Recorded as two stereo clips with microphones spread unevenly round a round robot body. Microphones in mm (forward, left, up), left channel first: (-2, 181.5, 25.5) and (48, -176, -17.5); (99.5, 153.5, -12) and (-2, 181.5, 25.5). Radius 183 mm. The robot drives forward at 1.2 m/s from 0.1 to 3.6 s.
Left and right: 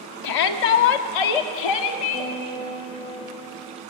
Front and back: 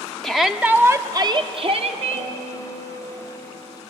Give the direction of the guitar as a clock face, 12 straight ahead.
6 o'clock.